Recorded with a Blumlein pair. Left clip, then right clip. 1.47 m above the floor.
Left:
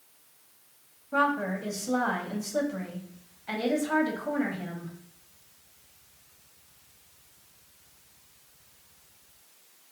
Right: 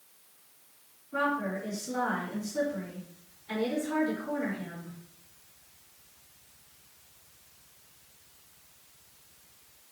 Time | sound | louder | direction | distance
1.1 | a woman speaking | left 4 dB | 45° left | 1.3 m